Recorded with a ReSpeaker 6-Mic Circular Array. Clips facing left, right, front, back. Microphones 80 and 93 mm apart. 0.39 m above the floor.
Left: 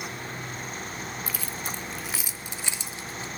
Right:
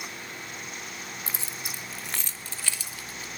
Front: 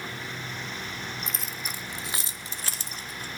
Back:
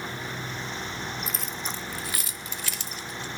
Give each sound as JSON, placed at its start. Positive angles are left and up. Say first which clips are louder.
{"t": 1.3, "sound": "keys jangling", "louder": "left 4 dB, back 2 dB", "azimuth_deg": -100, "distance_m": 0.7}